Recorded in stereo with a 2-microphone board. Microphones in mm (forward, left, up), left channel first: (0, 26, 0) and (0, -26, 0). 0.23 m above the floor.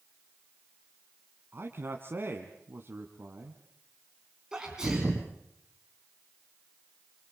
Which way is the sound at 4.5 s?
15° right (ahead or behind).